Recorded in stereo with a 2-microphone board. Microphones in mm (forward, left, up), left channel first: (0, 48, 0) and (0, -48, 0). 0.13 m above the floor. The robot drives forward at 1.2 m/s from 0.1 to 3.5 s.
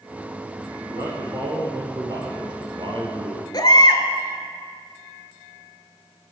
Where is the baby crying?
45° left (ahead or behind), 0.8 m.